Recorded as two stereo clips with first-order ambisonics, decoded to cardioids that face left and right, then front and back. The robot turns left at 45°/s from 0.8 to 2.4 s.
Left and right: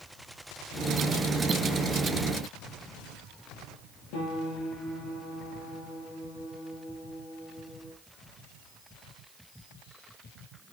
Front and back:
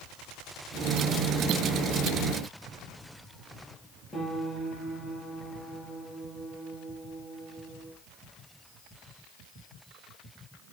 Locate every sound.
4.1 s a piano: 80° left, 6.5 m